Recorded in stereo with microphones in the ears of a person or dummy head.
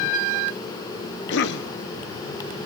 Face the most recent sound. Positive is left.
turn(degrees=70)  # may be behind; listen again after turning